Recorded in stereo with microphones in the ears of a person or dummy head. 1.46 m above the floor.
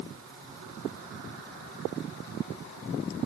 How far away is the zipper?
I don't hear a zipper.